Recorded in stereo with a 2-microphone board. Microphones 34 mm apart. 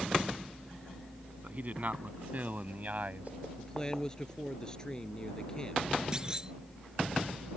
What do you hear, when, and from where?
1.4 s a man speaking: 50° right (ahead or behind)
3.6 s a man speaking: 20° left (ahead or behind)
6.1 s a clunk: 20° right (ahead or behind)